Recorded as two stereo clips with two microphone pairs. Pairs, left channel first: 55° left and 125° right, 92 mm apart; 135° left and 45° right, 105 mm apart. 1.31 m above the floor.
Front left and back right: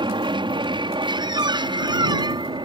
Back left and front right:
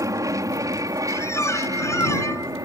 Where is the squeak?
165° right.